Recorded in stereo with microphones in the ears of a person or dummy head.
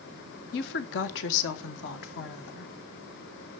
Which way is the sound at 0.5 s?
55° left (ahead or behind).